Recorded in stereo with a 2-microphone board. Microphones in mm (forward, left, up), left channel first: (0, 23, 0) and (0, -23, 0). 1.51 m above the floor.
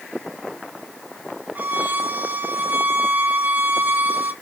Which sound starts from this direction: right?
A violin, at 1.6 s.